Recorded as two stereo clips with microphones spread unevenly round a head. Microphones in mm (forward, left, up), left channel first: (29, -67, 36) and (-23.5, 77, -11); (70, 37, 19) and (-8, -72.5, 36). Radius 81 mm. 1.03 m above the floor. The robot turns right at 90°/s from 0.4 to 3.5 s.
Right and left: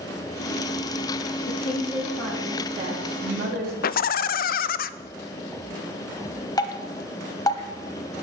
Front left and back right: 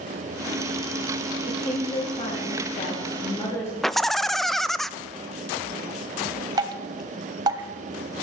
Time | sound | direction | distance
1.5 | a woman speaking | 55° right | 2.0 m
3.8 | laughter | 30° right | 0.6 m
6.6 | dripping | 95° right | 1.0 m